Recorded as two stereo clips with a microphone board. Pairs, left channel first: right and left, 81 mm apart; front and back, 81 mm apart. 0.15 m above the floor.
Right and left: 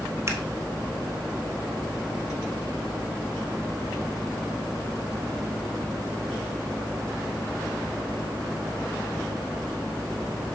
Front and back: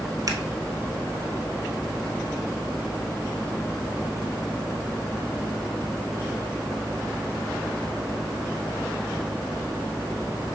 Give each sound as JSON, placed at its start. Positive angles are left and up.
{"t": 0.3, "sound": "scissors", "azimuth_deg": 145, "distance_m": 1.2}